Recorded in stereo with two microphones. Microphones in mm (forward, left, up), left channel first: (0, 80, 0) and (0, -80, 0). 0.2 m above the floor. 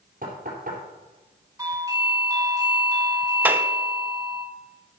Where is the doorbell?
20° right (ahead or behind), 2 m.